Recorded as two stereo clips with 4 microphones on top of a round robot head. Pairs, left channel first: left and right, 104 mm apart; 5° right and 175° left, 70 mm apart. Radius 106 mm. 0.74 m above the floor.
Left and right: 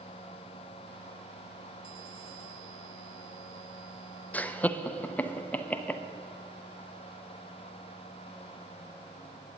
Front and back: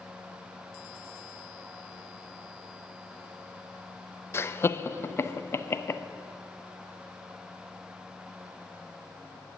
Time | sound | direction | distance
4.3 | laughter | 25° left | 0.7 m